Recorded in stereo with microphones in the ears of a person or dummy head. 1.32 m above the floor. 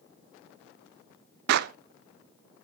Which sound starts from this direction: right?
A clap, at 1.5 s.